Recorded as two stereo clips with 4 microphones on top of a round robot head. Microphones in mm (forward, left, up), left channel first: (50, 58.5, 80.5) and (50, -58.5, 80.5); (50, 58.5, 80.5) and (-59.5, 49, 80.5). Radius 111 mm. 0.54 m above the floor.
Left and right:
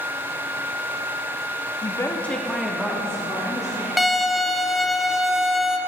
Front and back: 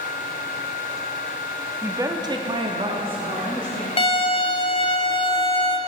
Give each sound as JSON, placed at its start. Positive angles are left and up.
{"t": 1.8, "sound": "a woman speaking", "azimuth_deg": 130, "distance_m": 1.1}
{"t": 4.0, "sound": "a violin", "azimuth_deg": 0, "distance_m": 1.1}